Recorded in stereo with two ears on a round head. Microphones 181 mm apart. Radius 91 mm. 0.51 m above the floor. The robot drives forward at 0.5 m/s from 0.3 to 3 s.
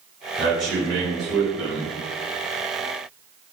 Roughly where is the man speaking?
Centre.